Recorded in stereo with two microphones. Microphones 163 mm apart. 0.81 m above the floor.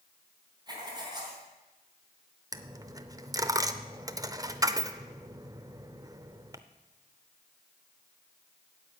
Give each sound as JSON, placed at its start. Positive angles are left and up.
{"t": 0.7, "sound": "writing", "side_deg": -25, "distance_m": 3.5}
{"t": 2.5, "sound": "a dropped coin", "side_deg": -20, "distance_m": 0.6}